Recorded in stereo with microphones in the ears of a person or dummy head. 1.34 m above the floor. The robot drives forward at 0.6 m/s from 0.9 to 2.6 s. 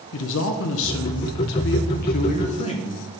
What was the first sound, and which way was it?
A man speaking, 70° left (ahead or behind).